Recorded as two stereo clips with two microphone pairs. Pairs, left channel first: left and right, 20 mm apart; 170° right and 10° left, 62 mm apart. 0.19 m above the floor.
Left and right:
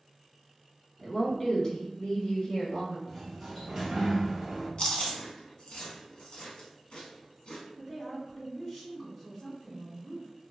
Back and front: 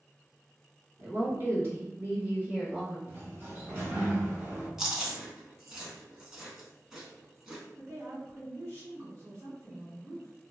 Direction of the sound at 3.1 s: 20° right.